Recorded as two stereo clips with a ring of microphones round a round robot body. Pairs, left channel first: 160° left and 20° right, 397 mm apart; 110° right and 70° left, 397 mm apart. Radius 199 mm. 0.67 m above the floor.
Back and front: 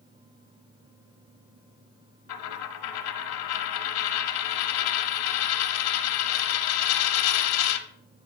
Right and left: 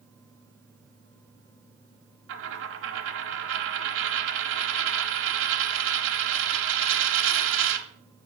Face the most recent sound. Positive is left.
turn(degrees=125)